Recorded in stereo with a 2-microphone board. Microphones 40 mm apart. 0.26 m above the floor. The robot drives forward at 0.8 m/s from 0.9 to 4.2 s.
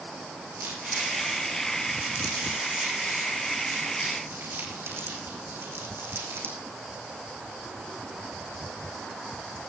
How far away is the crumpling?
About 7.5 m.